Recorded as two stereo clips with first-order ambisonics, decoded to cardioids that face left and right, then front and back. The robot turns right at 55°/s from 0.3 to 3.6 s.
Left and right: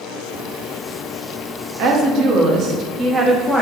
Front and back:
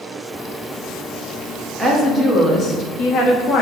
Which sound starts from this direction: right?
A woman speaking, at 1.8 s.